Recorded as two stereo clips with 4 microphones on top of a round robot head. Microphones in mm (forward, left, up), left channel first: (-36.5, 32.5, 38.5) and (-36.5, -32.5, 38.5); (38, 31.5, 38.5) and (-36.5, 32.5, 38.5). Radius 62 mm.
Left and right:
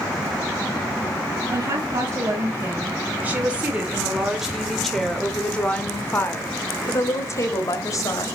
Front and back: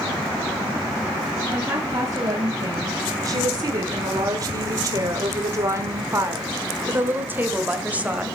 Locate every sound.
1.5 s a woman speaking: 130° right, 2.5 m; by 8.3 s 110° left, 2 m